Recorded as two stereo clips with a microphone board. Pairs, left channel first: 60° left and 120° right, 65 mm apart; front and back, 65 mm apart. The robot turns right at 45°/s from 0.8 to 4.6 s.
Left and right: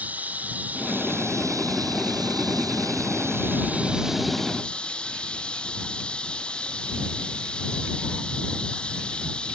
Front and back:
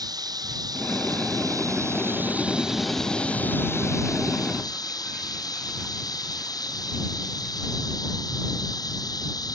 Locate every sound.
0.0 s running water: 175° left; by 9.5 s 15° right